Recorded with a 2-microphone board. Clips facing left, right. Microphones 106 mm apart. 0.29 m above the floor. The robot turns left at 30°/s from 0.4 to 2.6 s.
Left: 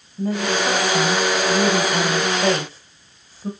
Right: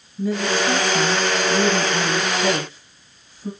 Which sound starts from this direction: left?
A woman speaking, at 0.2 s.